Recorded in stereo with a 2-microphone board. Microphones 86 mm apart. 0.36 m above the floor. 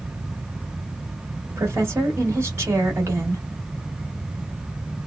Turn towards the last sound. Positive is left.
turn(degrees=-35)  # may be behind; listen again after turning